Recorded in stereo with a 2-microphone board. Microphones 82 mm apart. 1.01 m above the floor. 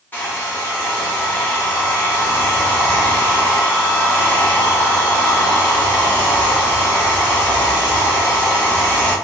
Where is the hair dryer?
25° left (ahead or behind), 1.0 m.